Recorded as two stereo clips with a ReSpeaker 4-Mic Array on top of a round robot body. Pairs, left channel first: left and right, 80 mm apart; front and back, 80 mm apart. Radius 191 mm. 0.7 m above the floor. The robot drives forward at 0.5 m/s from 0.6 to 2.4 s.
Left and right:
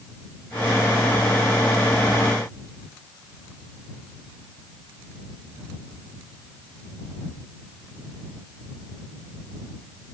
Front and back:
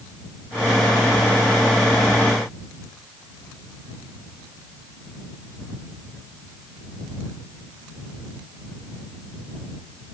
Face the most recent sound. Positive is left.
No sound to turn to.